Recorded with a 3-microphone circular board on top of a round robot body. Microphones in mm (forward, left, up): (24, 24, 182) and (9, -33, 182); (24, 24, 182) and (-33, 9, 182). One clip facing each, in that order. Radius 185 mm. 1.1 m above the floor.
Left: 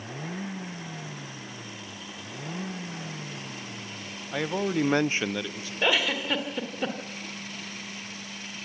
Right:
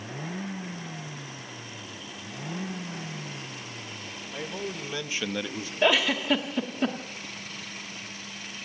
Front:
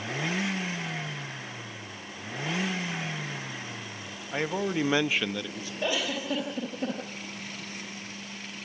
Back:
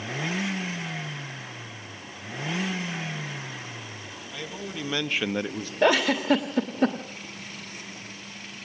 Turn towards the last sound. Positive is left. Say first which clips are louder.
# right 2 dB, back 9 dB
turn(degrees=165)